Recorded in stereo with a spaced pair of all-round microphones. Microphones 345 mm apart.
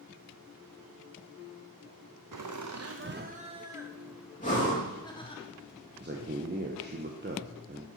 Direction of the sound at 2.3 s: 65° right (ahead or behind).